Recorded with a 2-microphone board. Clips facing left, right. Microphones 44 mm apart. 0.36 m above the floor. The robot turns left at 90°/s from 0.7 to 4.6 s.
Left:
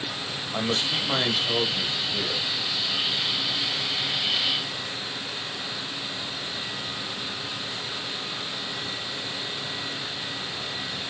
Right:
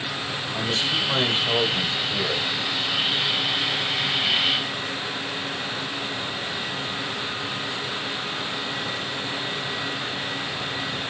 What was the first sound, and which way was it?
A man speaking, 40° left.